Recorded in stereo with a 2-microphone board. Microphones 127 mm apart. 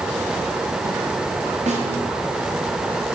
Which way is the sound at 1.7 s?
70° right (ahead or behind).